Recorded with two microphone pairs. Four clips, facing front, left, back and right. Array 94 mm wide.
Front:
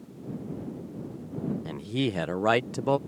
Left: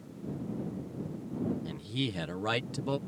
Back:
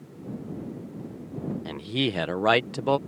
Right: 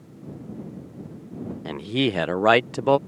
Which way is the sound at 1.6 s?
100° right.